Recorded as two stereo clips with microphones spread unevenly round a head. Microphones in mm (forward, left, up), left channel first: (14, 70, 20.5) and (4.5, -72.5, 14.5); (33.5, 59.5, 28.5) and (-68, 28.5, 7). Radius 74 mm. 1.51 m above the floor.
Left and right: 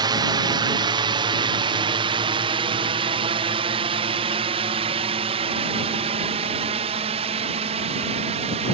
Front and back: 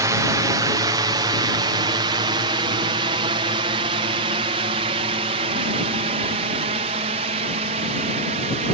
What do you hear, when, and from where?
0.0 s a drone: 135° right; by 8.7 s 140° right